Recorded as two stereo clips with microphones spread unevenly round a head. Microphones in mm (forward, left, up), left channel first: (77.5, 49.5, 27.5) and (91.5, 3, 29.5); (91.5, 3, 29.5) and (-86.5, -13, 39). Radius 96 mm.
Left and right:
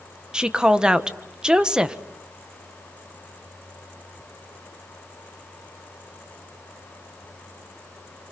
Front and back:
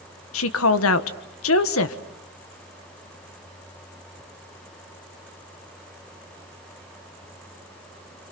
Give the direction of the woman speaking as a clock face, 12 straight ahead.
12 o'clock.